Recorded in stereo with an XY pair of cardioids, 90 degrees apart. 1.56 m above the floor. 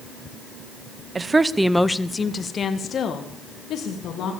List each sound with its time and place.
1.1 s a woman speaking: 35° right, 1.0 m; by 4.3 s 70° left, 3 m